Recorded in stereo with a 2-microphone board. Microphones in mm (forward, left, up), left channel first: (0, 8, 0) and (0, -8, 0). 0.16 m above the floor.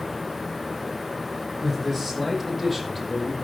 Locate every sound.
1.6 s a man speaking: 15° left (ahead or behind), 7 m; by 3.3 s centre (ahead or behind), 5.5 m